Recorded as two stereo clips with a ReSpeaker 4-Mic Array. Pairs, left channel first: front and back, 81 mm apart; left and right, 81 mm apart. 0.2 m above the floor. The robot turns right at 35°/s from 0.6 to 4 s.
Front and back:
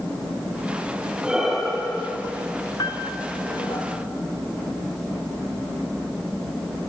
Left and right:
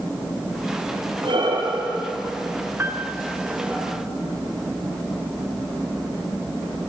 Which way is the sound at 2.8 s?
30° right.